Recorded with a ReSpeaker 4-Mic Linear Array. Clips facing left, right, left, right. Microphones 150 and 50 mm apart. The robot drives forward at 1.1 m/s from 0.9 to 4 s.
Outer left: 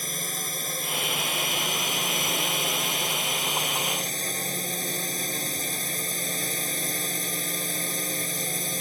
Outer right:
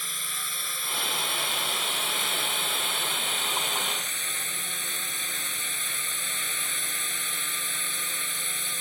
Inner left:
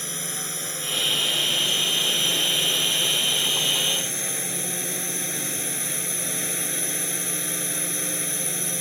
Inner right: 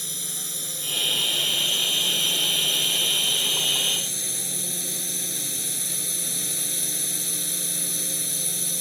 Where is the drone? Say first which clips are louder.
Outer left 7 dB, inner left 4 dB; 40° left (ahead or behind); by 8.8 s 35° left (ahead or behind).